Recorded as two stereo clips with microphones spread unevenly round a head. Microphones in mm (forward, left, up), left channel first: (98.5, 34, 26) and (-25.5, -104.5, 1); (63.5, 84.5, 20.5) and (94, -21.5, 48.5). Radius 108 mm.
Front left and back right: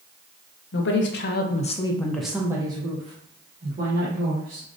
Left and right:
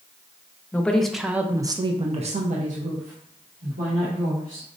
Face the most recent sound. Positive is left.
turn(degrees=-95)